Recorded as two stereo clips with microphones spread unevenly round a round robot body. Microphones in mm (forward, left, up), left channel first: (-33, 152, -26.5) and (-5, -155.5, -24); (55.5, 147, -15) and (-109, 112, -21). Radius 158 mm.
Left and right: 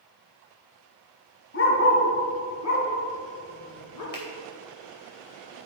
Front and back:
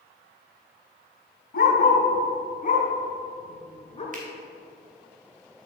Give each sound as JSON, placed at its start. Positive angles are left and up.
{"t": 1.5, "sound": "a dog barking", "azimuth_deg": 40, "distance_m": 2.5}
{"t": 4.1, "sound": "a finger snap", "azimuth_deg": 150, "distance_m": 3.0}